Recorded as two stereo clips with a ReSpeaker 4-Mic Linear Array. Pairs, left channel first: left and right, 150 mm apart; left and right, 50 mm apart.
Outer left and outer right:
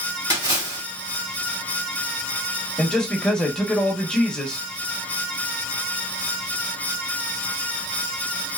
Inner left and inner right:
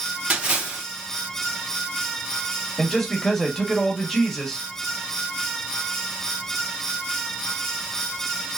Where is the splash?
25° right (ahead or behind), 1.5 m.